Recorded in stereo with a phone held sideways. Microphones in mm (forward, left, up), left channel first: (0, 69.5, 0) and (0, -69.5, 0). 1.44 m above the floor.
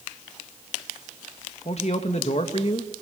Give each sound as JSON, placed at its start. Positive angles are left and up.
{"t": 1.6, "sound": "a man speaking", "side_deg": 50, "distance_m": 2.5}